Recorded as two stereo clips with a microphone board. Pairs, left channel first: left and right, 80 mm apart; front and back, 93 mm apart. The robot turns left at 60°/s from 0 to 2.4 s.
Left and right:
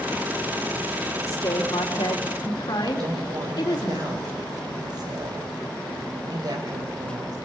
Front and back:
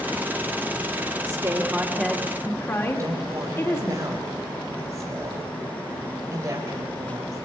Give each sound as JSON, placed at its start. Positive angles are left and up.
{"t": 1.3, "sound": "a woman speaking", "azimuth_deg": 130, "distance_m": 2.5}
{"t": 3.0, "sound": "a woman speaking", "azimuth_deg": -125, "distance_m": 3.5}